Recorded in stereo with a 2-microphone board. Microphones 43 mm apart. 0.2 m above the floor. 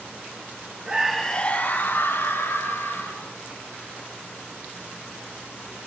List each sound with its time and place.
0.8 s a scream: 20° right (ahead or behind), 1.1 m; by 3.3 s 75° left (ahead or behind), 3.5 m